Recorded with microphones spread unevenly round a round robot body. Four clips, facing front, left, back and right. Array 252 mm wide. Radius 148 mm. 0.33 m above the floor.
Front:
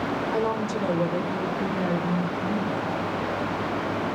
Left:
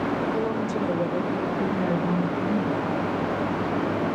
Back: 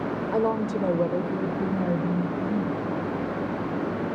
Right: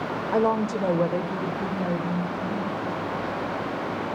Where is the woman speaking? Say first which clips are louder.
Right 3 dB, back 4 dB; 125° right, 1.1 m; by 2.8 s 130° left, 1.8 m.